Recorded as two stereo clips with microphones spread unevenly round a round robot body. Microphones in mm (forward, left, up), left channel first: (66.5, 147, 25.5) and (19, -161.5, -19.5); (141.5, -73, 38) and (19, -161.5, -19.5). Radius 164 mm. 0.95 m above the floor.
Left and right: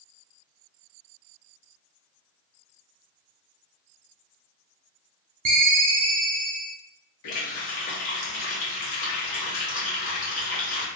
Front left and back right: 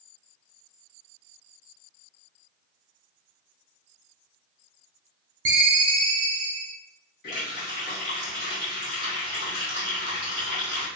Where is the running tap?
55° left, 1.3 m.